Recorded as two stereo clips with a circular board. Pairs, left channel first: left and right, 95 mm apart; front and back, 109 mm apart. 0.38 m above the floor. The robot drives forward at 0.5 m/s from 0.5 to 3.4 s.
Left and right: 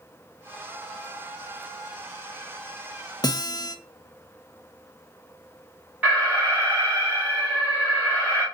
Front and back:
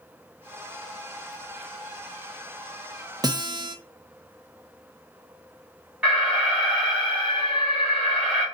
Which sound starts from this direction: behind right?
An alarm, at 6.0 s.